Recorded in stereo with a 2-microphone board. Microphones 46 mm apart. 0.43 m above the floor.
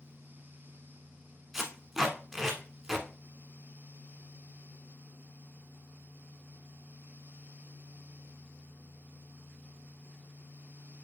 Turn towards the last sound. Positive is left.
turn(degrees=-10)  # may be behind; listen again after turning